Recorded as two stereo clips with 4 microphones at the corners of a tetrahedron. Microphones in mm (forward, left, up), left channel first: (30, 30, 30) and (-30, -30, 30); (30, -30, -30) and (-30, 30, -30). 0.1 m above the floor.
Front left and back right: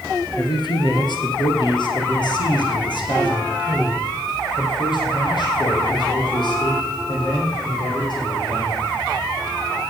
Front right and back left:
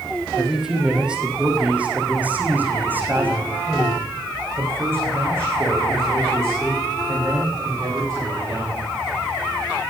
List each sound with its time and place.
0.4 s a man speaking: 50° left, 2.5 m; by 8.8 s 75° left, 7 m